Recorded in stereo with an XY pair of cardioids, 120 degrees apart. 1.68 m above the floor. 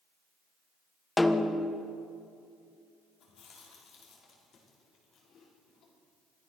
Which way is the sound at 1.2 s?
15° left.